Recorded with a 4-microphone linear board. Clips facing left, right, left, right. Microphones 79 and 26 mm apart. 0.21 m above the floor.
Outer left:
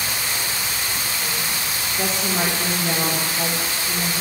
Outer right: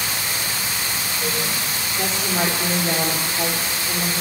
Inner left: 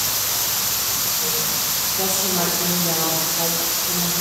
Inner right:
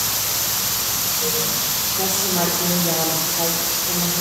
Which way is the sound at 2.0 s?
5° left (ahead or behind).